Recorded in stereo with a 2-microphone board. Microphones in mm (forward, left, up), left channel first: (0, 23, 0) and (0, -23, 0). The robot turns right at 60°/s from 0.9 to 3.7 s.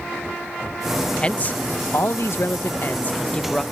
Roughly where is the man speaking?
Ahead left.